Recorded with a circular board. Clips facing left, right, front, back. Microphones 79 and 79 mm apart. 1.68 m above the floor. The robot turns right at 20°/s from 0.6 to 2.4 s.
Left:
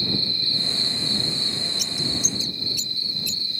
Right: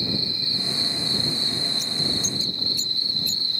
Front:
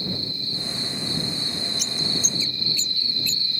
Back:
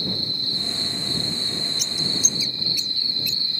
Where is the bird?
90° left; by 3.6 s 105° left.